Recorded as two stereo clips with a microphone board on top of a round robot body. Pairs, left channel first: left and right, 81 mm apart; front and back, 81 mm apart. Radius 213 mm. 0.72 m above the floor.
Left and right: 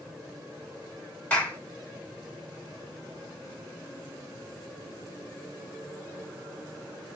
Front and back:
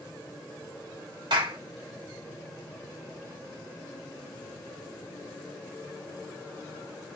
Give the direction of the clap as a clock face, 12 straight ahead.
7 o'clock.